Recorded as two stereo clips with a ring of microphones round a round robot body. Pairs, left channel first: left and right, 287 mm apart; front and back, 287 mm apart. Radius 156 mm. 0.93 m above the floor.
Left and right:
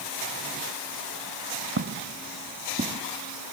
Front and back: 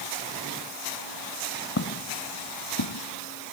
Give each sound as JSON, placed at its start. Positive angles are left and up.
{"t": 1.8, "sound": "footsteps", "azimuth_deg": -45}